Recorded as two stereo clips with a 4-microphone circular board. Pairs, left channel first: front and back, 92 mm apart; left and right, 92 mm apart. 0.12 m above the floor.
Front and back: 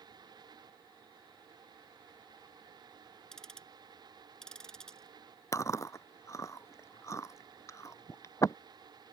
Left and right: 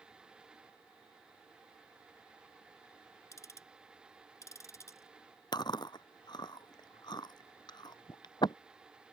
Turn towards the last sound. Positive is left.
turn(degrees=55)